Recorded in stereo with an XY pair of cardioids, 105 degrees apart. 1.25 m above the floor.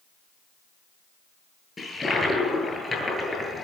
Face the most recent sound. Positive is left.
turn(degrees=25)